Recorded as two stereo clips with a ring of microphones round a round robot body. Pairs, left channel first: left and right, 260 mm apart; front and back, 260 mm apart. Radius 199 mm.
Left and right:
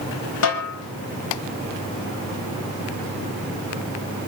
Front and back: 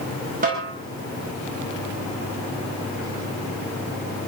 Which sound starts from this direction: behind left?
A snare drum, at 0.4 s.